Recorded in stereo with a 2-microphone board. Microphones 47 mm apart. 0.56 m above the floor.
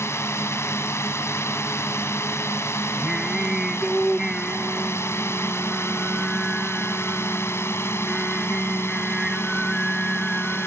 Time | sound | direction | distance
0.0 | a drone | 75° left (ahead or behind) | ?
3.0 | singing | 5° right (ahead or behind) | ?